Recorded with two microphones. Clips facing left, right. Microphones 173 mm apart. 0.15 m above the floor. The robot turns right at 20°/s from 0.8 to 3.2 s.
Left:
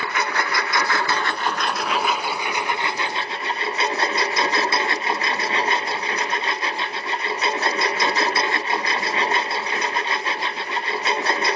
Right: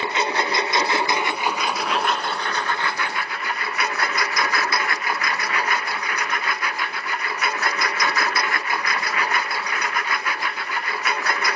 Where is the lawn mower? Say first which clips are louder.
Right 2 dB; 20° right; by 11.6 s 25° left.